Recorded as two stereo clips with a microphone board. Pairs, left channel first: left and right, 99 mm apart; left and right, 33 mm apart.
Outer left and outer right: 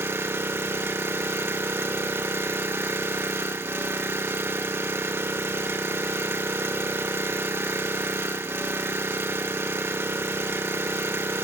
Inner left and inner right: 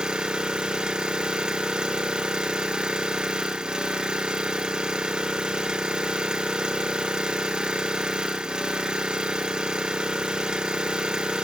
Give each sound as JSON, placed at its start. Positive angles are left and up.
{"t": 0.0, "sound": "an engine running", "side_deg": -25, "distance_m": 0.9}